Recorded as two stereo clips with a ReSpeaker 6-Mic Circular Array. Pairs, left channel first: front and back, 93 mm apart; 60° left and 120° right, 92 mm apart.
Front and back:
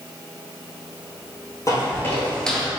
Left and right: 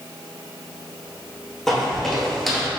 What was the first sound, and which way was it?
Footsteps, 25° right.